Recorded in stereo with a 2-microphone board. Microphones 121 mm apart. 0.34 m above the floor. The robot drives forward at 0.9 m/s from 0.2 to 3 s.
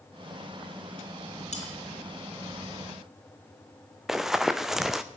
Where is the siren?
No siren in this recording.